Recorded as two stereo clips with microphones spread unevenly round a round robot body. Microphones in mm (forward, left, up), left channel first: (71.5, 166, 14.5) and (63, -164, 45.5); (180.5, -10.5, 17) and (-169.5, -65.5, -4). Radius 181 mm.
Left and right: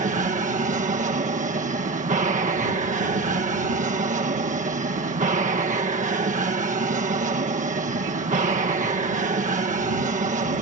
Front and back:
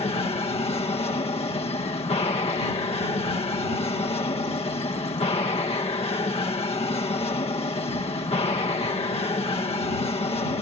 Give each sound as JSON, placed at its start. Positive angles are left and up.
{"t": 0.0, "sound": "an aircraft", "azimuth_deg": -50}